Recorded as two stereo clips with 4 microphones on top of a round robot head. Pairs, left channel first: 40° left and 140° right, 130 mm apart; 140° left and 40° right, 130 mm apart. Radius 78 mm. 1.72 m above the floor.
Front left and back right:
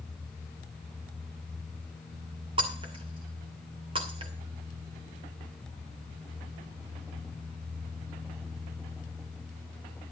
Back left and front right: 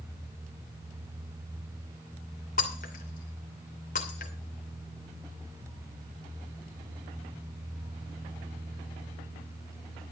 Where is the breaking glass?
170° left, 2.5 m.